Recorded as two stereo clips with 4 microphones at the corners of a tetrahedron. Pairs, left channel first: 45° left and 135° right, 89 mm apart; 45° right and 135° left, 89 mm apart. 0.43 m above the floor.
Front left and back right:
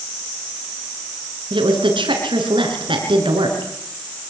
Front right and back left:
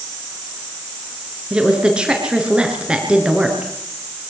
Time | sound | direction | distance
1.5 | a woman speaking | 145° right | 5.5 m